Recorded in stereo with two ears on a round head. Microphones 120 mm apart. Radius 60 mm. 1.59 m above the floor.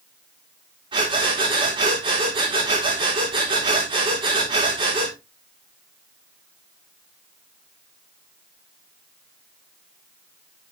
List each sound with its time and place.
0.9 s breathing: 40° right (ahead or behind), 5 m